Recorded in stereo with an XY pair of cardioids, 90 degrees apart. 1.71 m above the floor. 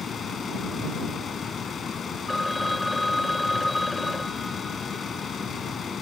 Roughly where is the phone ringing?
Ahead.